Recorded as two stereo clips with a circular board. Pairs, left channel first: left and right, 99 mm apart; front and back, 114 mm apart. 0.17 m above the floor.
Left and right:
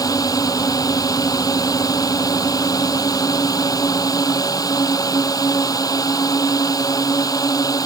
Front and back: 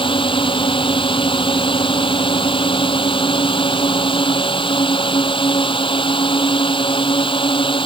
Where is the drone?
40° left.